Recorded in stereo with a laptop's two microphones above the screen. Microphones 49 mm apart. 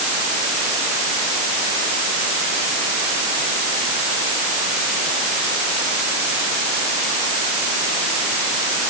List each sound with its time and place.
Only background noise.